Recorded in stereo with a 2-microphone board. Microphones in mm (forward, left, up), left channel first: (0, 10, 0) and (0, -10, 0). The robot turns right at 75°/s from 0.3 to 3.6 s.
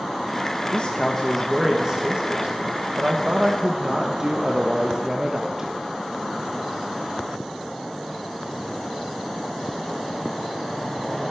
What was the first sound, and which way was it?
A man speaking, 130° left.